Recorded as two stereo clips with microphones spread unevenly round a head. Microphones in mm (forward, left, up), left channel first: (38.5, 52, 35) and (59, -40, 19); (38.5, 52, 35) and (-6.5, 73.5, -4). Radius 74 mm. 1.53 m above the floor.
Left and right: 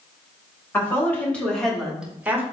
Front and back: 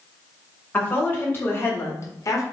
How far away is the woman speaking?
About 2.5 m.